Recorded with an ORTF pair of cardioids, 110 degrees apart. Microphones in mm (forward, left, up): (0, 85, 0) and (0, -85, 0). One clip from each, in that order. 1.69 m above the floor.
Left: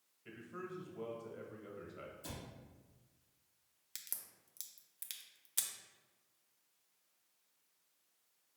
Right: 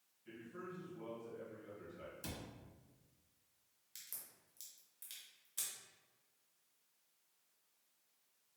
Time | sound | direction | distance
0.2 | a man speaking | 65° left | 1.2 m
2.2 | a cupboard door | 65° right | 1.4 m
4.0 | a crack | 45° left | 0.6 m